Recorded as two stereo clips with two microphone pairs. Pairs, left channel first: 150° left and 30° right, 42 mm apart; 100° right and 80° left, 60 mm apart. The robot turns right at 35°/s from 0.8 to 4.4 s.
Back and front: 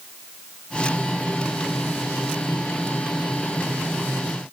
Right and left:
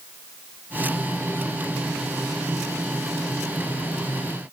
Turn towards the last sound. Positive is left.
No sound to turn to.